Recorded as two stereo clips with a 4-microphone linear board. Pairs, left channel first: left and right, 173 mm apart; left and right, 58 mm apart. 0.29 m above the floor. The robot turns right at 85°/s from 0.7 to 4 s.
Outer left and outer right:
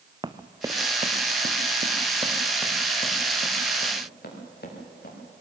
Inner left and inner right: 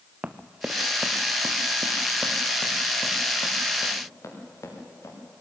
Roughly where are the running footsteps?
Right.